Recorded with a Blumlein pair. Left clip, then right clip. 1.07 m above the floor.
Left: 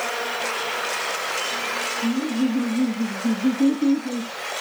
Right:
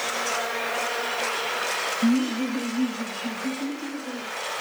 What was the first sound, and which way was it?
Laughter, 20° right.